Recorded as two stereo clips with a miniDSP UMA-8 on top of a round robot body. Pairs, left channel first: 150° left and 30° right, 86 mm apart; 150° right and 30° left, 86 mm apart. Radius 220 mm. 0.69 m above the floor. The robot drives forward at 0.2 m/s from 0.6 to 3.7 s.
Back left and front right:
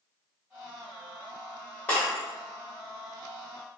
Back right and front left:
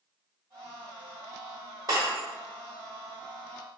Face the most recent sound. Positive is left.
turn(degrees=105)